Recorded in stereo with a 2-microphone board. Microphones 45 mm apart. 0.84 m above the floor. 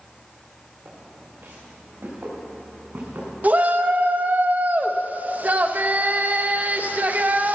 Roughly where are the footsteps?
Right.